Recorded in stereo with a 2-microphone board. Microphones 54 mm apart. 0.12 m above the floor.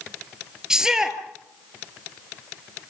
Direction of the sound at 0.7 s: 10° right (ahead or behind).